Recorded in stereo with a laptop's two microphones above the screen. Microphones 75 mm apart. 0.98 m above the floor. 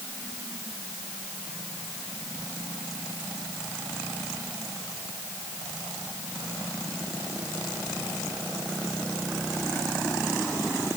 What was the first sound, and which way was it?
Only background noise.